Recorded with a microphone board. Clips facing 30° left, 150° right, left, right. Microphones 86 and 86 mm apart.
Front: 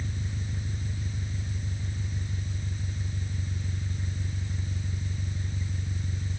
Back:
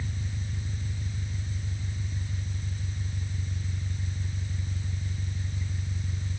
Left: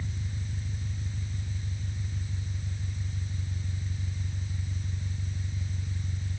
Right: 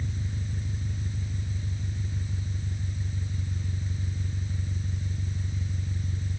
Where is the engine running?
35° right.